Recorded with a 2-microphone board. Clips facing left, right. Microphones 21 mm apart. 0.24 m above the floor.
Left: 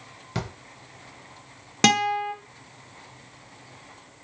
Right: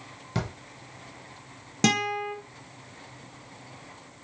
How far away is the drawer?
About 0.5 m.